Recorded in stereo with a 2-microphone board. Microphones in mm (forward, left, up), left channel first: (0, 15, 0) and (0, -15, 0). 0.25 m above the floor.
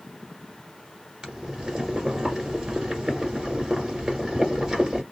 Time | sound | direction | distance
1.2 | boiling | 25° right (ahead or behind) | 1.6 m